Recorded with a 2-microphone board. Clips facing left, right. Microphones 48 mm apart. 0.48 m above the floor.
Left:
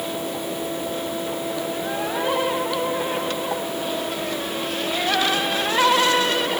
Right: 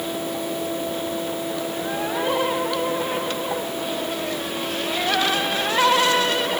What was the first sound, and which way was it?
Only background noise.